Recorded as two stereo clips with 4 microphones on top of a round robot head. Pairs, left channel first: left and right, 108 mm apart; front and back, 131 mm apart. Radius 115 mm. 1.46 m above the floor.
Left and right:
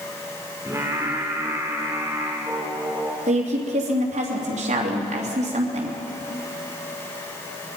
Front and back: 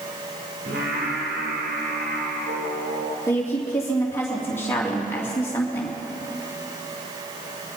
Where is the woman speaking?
80° right, 3 m.